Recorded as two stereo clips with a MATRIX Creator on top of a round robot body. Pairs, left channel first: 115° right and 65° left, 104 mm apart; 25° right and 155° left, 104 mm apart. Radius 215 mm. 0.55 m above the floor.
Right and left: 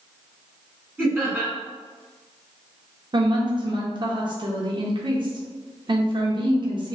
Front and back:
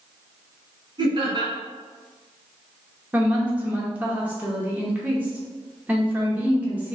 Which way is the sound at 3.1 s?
85° left.